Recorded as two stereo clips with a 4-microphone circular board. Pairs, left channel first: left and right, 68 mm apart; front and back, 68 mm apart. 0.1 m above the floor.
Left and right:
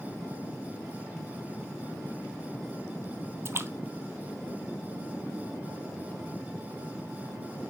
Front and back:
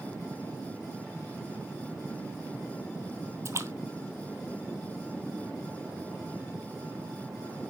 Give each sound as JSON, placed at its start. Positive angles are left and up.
{"t": 3.5, "sound": "a splash", "azimuth_deg": -135, "distance_m": 0.7}